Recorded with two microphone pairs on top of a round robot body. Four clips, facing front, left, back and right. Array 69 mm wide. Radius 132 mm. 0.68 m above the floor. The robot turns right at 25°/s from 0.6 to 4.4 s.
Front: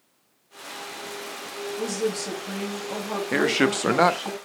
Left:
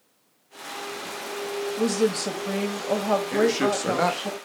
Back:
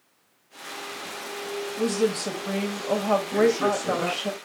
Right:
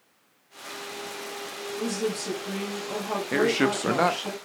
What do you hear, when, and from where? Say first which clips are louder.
1.8 s a woman speaking: left 5 dB, back 3 dB; 115° left, 4 m; by 4.3 s 175° left, 4 m
3.3 s a man speaking: right 2 dB, front 2 dB; 20° right, 1.4 m; by 4.4 s 10° left, 1.4 m